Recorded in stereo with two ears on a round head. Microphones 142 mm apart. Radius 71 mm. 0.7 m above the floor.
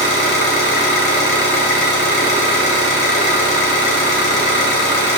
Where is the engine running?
75° left (ahead or behind), 1.6 m.